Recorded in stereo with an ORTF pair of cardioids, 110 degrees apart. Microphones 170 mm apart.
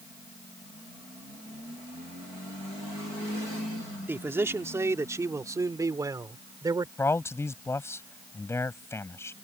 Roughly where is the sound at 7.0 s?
Ahead.